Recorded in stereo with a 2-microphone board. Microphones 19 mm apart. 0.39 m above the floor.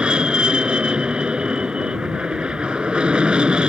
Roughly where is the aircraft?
Right.